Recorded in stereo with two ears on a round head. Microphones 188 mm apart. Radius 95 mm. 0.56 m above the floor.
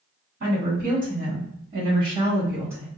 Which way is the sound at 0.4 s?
50° right (ahead or behind).